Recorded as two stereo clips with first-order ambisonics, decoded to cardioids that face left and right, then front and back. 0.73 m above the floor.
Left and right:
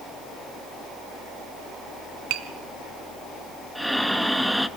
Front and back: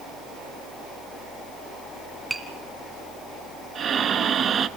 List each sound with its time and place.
2.3 s tapping: 100° right, 1.9 m
3.8 s breathing: 175° right, 0.7 m